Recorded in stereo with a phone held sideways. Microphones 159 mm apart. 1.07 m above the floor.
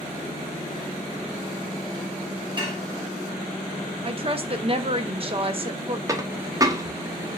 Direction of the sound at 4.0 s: 35° right (ahead or behind).